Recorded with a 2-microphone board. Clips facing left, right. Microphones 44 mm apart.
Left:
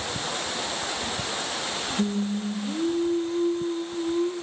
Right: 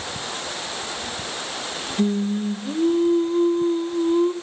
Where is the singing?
40° right (ahead or behind), 1.8 m.